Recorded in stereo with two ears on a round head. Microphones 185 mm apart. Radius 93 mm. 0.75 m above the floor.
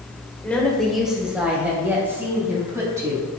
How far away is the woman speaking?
About 2.5 m.